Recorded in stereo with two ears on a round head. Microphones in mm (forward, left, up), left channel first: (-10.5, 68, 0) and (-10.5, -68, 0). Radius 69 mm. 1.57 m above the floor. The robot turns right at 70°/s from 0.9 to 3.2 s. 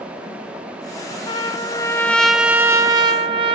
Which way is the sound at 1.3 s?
105° left.